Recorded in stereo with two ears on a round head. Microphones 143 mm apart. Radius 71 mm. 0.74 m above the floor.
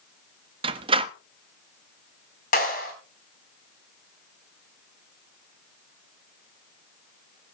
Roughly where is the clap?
Left.